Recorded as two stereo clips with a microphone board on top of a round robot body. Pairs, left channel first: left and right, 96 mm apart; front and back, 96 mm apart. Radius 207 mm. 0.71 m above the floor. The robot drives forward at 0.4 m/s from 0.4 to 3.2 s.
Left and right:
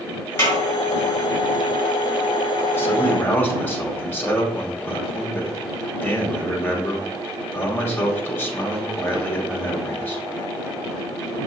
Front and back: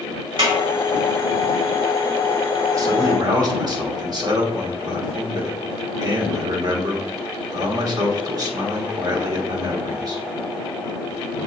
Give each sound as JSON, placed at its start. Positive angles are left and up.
{"t": 0.4, "sound": "a snare drum", "azimuth_deg": 155, "distance_m": 2.5}
{"t": 2.7, "sound": "a man speaking", "azimuth_deg": 145, "distance_m": 1.2}